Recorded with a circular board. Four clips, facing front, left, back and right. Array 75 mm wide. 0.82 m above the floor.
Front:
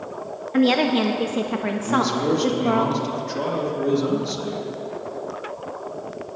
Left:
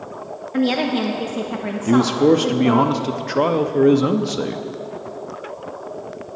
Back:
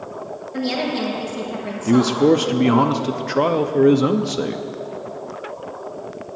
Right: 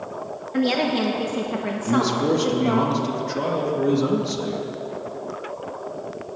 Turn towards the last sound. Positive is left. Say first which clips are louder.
# left 6 dB, back 7 dB
turn(degrees=140)